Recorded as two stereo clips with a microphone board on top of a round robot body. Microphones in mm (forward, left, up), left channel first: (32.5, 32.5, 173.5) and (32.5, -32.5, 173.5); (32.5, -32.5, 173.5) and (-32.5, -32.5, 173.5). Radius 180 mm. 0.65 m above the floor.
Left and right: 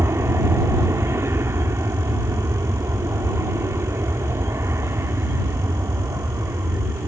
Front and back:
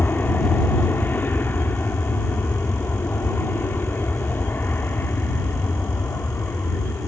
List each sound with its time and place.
0.0 s an aircraft: 55° right